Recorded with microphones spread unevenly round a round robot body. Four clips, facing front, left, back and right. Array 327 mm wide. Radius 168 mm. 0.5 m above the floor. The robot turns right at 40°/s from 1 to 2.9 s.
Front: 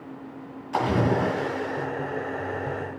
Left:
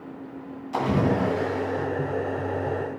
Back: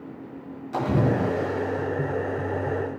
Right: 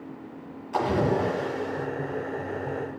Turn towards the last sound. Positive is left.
turn(degrees=-140)